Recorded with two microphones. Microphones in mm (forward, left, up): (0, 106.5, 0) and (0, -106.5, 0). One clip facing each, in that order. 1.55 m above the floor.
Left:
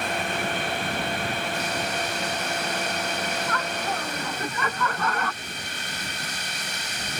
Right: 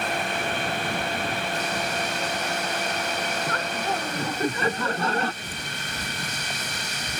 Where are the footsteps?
75° right (ahead or behind); by 7.2 s 80° right.